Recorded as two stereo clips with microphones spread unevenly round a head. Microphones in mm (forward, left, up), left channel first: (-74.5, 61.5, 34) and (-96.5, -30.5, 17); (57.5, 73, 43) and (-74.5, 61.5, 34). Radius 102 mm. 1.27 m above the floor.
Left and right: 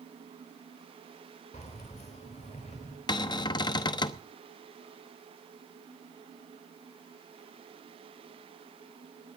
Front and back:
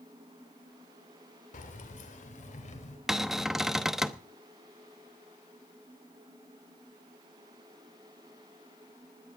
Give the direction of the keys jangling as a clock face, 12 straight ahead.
11 o'clock.